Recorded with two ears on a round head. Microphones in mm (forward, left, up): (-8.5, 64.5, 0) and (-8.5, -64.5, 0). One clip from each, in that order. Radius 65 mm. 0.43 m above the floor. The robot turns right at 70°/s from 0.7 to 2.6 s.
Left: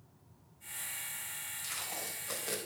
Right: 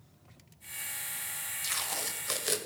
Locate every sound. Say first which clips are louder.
1.6 s tape being pulled: right 7 dB; 150° right, 1.7 m; by 2.6 s 85° right, 1.7 m